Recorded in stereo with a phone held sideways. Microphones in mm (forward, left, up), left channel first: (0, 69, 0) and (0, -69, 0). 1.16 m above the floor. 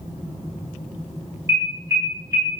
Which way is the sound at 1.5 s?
25° right (ahead or behind).